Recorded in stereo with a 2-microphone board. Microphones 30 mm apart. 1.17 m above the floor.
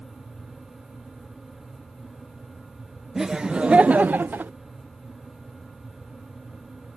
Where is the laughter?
15° right (ahead or behind); by 4.5 s 85° right.